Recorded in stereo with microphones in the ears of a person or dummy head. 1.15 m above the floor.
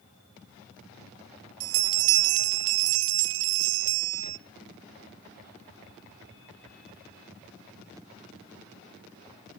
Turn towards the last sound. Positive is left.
turn(degrees=-75)  # may be behind; listen again after turning